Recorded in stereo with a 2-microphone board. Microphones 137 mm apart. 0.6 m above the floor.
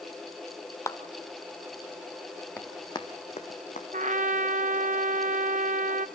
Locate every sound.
0.9 s a clap: 20° left (ahead or behind), 1.2 m
2.6 s running footsteps: 15° left (ahead or behind), 2.0 m; by 3.8 s 65° left (ahead or behind), 2.5 m
3.9 s a trumpet: 65° right (ahead or behind), 0.8 m